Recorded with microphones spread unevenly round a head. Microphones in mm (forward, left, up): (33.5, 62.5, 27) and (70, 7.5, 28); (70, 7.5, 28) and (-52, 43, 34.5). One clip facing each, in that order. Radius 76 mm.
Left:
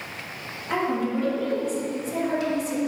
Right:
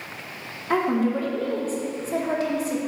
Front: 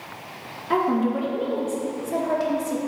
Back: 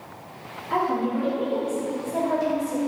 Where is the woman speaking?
15° right, 1.2 m.